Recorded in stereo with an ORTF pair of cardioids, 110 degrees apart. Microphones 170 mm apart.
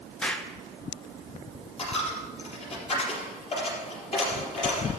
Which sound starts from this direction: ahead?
An explosion, at 0.2 s.